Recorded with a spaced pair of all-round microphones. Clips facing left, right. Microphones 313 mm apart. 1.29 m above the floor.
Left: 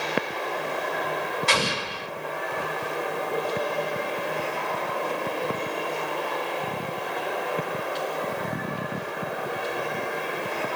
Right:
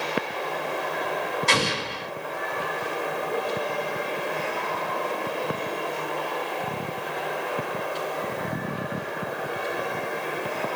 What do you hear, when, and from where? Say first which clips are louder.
1.5 s an explosion: right 1 dB; 55° right (ahead or behind), 1.9 m